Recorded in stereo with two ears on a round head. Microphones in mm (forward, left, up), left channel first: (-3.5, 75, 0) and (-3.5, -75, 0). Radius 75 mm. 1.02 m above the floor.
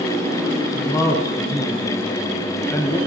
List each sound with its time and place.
0.7 s a man speaking: 15° left (ahead or behind), 0.9 m